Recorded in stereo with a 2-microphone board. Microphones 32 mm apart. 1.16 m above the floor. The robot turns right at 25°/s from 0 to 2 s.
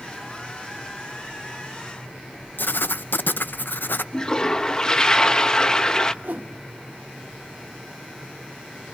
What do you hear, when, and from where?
2.6 s writing: 85° left, 0.6 m
4.1 s a toilet flushing: 20° left (ahead or behind), 0.7 m
6.2 s a whoosh: 70° right (ahead or behind), 1.1 m